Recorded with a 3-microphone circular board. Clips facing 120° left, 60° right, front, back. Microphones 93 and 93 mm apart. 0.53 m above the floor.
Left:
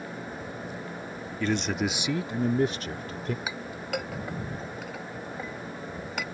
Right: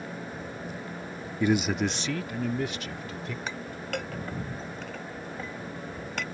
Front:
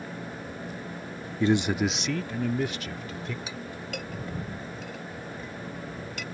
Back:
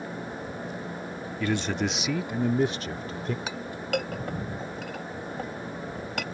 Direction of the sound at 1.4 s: 5° right.